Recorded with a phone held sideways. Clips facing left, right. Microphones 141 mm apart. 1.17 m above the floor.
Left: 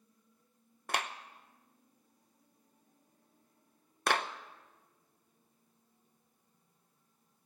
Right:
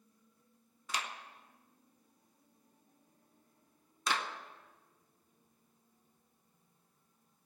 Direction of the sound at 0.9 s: 70° left (ahead or behind).